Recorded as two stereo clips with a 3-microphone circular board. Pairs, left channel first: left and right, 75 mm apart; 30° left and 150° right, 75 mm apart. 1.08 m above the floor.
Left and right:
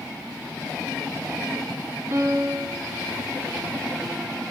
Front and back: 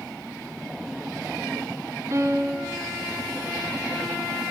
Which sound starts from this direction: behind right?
A piano, at 2.1 s.